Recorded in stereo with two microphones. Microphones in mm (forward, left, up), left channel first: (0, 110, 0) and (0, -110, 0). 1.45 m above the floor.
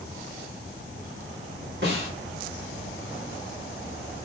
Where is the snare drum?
50° right (ahead or behind), 1.6 m.